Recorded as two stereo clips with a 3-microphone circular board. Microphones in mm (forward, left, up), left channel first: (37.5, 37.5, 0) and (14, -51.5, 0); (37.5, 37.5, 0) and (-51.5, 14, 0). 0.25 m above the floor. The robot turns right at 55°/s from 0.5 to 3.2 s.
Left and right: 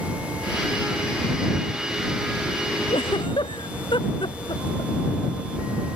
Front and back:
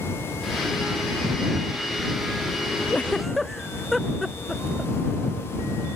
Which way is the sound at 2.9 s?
85° left.